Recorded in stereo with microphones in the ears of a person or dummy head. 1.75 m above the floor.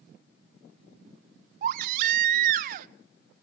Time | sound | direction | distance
1.6 | a baby crying | 50° right (ahead or behind) | 0.9 m